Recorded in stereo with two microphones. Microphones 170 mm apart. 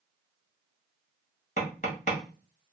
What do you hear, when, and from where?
1.6 s tapping: 40° left (ahead or behind), 1.3 m